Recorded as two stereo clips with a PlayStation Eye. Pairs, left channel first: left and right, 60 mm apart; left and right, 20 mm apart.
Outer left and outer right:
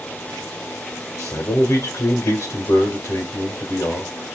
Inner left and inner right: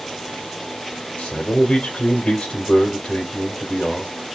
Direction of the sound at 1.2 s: 55° left (ahead or behind).